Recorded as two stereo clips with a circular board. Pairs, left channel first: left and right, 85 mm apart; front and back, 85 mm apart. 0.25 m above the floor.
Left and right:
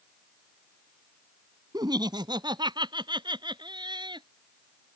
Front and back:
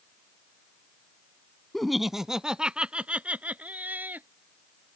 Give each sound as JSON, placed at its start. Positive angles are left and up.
{"t": 1.7, "sound": "laughter", "azimuth_deg": -85}